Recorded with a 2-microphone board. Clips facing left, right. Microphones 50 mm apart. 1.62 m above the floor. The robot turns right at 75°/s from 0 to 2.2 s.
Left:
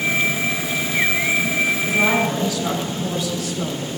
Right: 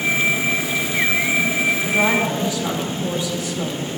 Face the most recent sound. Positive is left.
turn(degrees=-25)  # may be behind; listen again after turning